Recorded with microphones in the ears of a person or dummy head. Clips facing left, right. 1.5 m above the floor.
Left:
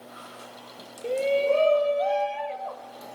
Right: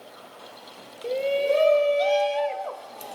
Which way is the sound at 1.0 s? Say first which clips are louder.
Even; centre (ahead or behind).